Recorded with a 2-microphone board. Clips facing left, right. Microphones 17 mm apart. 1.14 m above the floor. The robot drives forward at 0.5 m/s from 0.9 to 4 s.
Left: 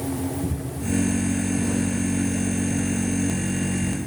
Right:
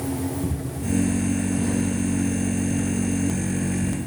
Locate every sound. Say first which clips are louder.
0.4 s footsteps: even; 20° right (ahead or behind), 3 m; by 4.1 s 10° left (ahead or behind), 2.5 m